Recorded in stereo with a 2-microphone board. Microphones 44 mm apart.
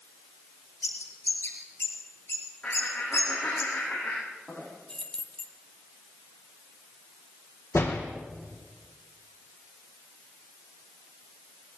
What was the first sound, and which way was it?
A bird, 80° left.